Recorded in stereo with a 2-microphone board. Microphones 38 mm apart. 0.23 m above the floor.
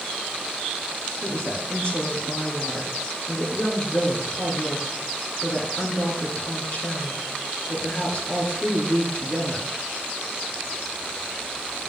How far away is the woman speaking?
About 3.5 m.